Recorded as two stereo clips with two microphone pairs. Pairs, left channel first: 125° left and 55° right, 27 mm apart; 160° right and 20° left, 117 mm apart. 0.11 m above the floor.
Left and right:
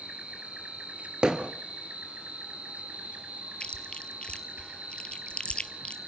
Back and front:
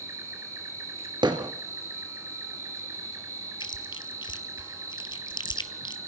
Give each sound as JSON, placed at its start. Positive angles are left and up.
{"t": 0.0, "sound": "an insect", "azimuth_deg": -40, "distance_m": 1.8}
{"t": 1.2, "sound": "hammering", "azimuth_deg": -10, "distance_m": 2.0}
{"t": 3.6, "sound": "chewing", "azimuth_deg": 160, "distance_m": 1.1}